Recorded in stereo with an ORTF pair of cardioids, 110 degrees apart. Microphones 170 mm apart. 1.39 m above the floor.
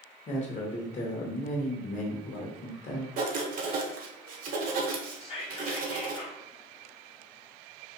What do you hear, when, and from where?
0.3 s a man speaking: 45° left, 1.0 m
3.2 s writing: 55° right, 0.7 m
5.2 s whispering: 35° left, 0.7 m